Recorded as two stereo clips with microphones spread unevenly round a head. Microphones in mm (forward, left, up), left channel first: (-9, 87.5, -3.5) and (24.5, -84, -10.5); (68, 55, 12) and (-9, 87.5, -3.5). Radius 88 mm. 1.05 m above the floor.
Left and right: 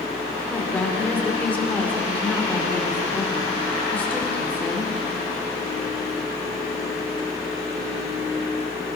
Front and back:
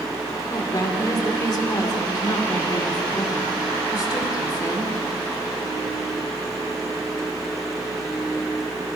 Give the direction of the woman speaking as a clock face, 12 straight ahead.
11 o'clock.